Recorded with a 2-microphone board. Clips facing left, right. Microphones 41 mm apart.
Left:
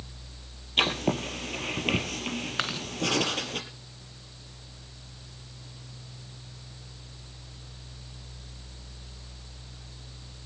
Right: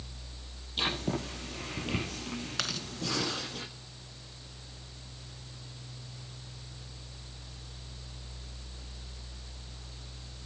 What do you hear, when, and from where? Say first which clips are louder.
0.8 s writing: left 6 dB; 70° left (ahead or behind), 6 m
2.6 s chewing: left 4 dB; 30° left (ahead or behind), 1.5 m